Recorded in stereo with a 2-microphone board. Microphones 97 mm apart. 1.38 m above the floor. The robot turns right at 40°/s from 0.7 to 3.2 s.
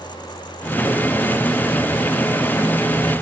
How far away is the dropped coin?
I don't hear a dropped coin.